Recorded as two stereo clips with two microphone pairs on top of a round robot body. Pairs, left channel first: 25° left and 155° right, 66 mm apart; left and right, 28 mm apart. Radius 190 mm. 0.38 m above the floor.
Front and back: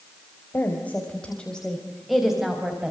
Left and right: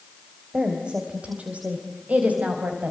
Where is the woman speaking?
35° right, 4 m; by 2.9 s 80° right, 4.5 m.